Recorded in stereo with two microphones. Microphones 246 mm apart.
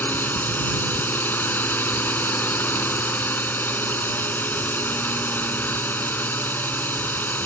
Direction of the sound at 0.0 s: 5° left (ahead or behind).